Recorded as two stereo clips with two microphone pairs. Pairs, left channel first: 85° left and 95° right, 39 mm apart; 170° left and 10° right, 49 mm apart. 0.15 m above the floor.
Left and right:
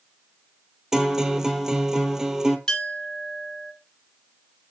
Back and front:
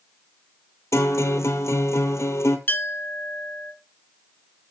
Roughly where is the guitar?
Behind.